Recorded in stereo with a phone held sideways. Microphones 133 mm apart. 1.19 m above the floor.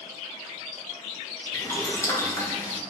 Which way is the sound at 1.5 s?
20° left (ahead or behind).